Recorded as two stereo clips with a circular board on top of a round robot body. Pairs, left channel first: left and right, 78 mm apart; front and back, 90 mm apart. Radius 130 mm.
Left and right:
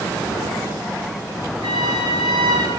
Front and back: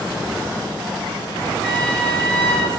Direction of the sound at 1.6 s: 80° right.